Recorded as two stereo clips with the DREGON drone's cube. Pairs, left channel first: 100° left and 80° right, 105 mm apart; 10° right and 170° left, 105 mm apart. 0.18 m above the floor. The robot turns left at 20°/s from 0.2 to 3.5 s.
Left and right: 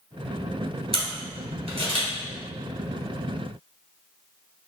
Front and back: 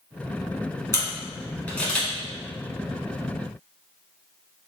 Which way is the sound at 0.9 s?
70° right.